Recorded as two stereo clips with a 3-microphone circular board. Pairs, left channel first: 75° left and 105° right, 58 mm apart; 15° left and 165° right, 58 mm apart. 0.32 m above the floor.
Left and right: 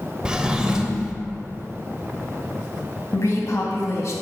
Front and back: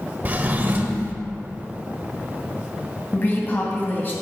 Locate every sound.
0.2 s a drawer: 165° right, 0.6 m
3.1 s a woman speaking: 65° left, 1.9 m